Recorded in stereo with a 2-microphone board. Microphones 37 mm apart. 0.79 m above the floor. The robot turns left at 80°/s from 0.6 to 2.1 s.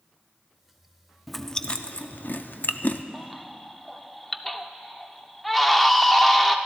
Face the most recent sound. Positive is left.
turn(degrees=5)  # may be behind; listen again after turning